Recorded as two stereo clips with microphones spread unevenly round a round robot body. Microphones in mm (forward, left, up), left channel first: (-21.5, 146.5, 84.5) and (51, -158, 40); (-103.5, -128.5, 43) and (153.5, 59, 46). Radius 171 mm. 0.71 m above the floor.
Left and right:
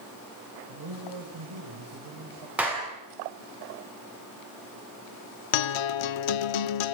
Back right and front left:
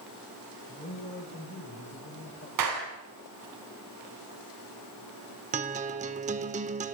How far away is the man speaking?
About 3.5 m.